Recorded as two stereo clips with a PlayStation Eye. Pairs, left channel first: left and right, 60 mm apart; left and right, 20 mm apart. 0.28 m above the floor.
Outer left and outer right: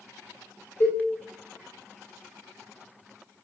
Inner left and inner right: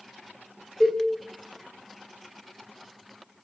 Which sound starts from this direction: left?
A cowbell, at 0.8 s.